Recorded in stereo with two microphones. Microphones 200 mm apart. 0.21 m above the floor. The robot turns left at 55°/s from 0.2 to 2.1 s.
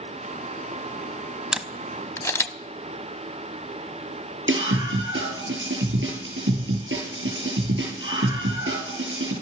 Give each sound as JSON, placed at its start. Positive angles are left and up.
{"t": 1.5, "sound": "a camera shutter", "side_deg": -5, "distance_m": 0.6}
{"t": 4.5, "sound": "a scream", "side_deg": -75, "distance_m": 6.0}